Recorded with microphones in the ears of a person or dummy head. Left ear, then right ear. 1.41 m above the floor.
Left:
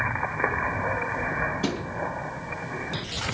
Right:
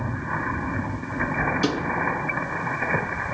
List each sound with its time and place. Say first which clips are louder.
1.6 s a thud: right 5 dB; 55° right (ahead or behind), 6 m